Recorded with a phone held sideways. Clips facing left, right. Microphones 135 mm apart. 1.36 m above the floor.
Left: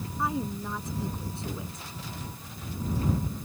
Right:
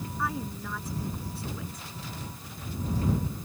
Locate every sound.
0.2 s a woman speaking: 20° left (ahead or behind)